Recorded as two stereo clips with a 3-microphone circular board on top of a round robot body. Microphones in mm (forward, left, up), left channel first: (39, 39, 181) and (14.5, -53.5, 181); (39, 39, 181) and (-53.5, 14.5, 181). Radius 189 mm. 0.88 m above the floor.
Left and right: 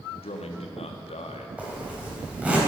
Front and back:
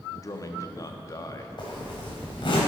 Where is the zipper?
30° right, 3.5 m.